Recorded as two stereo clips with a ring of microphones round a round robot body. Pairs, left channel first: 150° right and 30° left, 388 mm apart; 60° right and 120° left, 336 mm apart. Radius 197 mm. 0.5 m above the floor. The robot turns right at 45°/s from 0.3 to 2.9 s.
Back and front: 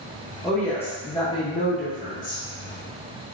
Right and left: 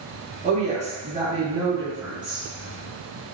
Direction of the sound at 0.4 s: 120° left.